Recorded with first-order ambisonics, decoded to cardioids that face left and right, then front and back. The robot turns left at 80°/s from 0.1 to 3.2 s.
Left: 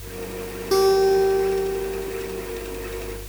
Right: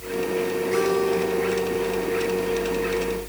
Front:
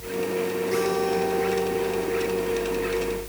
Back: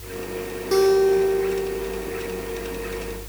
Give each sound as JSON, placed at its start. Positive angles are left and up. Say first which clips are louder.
{"t": 0.7, "sound": "a guitar", "louder": "left 7 dB, back 9 dB", "azimuth_deg": 125, "distance_m": 4.0}